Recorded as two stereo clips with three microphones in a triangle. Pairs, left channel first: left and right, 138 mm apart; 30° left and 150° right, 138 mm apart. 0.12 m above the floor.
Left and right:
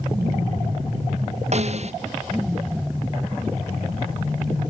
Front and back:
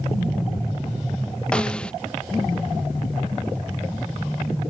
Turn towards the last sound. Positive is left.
turn(degrees=-55)